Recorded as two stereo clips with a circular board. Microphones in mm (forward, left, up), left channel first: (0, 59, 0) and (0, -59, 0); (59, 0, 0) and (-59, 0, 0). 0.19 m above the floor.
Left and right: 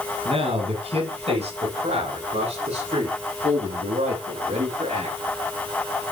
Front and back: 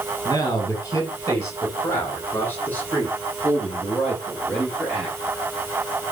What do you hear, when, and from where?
0.2 s a man speaking: 60° right, 8 m; by 5.2 s 85° right, 12.5 m